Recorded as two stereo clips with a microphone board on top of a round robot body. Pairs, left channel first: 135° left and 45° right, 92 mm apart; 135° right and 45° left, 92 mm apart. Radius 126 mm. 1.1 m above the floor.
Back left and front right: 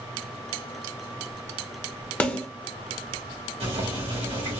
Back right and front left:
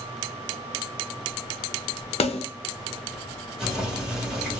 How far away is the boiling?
About 1.6 m.